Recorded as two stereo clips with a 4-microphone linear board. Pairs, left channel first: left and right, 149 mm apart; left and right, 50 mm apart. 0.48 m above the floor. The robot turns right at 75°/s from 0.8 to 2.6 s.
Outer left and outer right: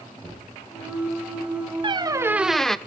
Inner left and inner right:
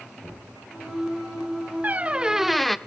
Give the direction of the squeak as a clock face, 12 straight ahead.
2 o'clock.